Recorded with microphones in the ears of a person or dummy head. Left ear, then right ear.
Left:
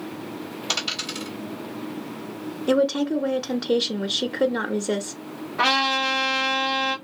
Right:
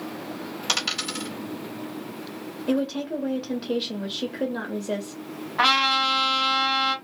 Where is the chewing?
I don't hear chewing.